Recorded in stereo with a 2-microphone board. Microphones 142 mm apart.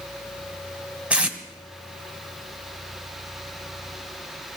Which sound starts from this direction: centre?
Tape being pulled, at 1.1 s.